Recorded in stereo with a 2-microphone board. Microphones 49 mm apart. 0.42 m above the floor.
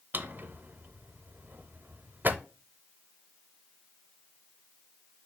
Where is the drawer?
45° right (ahead or behind), 0.6 m.